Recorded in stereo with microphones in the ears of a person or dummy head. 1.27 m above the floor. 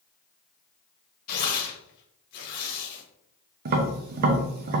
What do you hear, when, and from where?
1.3 s tearing paper: 55° left (ahead or behind), 1.1 m
3.6 s tapping: 50° right (ahead or behind), 0.7 m